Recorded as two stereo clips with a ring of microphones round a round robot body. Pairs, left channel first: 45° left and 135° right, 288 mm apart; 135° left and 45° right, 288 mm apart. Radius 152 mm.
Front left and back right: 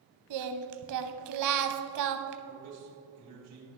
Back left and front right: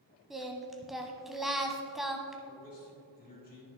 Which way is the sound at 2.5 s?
165° right.